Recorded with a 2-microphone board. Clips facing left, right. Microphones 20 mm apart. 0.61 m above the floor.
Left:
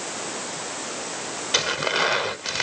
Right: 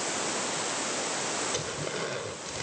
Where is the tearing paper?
70° left (ahead or behind).